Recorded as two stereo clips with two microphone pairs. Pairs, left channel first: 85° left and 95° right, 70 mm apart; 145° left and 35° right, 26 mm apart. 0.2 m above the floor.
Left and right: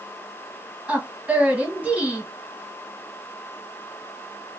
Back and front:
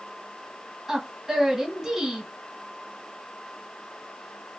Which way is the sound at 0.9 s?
75° right.